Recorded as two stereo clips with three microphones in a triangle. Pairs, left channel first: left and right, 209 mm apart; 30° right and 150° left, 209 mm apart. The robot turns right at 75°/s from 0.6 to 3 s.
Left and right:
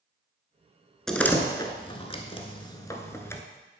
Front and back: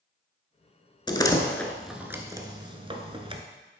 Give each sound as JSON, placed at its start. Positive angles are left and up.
{"t": 1.1, "sound": "a door slam", "azimuth_deg": 5, "distance_m": 0.9}